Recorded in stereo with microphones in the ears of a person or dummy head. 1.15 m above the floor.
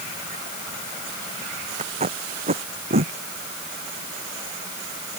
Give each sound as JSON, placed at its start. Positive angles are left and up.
{"t": 1.8, "sound": "tape being pulled", "side_deg": -35}